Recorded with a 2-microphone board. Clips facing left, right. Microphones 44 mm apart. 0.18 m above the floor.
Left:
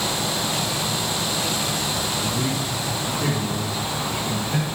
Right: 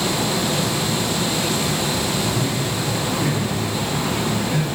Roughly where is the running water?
Right.